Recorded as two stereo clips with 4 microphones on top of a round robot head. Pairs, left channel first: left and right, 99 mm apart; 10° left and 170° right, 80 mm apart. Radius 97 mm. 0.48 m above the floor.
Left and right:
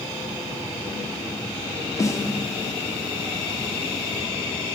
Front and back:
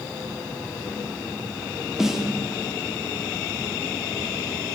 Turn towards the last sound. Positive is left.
turn(degrees=110)